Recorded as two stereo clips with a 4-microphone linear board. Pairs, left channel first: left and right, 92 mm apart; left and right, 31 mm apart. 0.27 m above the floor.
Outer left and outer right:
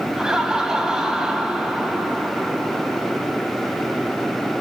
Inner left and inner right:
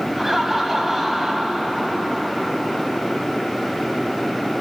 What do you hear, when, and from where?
0.2 s laughter: 5° right (ahead or behind), 1.9 m